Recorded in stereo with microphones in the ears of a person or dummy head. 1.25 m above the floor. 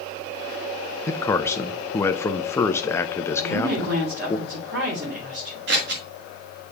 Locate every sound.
1.1 s a man speaking: 20° left (ahead or behind), 0.5 m
3.4 s a woman speaking: 55° right (ahead or behind), 3 m
5.7 s scissors: 55° right (ahead or behind), 1.4 m